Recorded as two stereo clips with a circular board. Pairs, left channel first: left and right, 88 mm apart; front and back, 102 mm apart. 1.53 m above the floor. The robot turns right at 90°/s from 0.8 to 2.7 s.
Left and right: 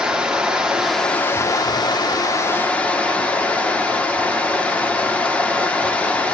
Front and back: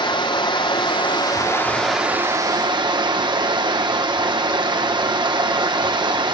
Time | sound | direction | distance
0.0 | running water | 10° right | 1.4 m